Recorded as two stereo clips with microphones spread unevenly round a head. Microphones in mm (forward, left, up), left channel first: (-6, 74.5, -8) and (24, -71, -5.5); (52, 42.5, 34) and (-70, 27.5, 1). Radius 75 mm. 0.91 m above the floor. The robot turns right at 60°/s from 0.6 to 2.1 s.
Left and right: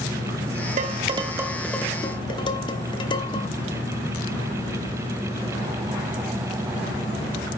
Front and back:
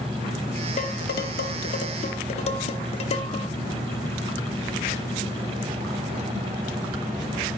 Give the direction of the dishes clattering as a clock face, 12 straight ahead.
1 o'clock.